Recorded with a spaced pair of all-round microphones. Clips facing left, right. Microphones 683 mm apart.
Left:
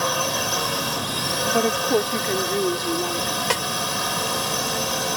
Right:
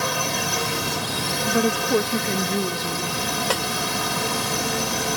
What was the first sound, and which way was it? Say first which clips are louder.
A drone: left 1 dB; 50° right (ahead or behind).